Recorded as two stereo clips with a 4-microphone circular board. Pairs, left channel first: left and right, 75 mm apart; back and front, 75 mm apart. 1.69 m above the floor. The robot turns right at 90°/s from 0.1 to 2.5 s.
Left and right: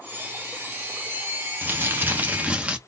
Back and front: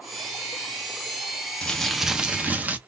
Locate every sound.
1.6 s crumpling: 115° right, 0.9 m; by 2.8 s 35° right, 0.9 m